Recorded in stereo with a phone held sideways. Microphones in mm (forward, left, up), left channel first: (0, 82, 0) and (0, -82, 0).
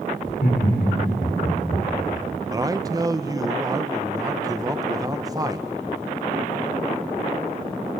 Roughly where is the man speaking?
Right.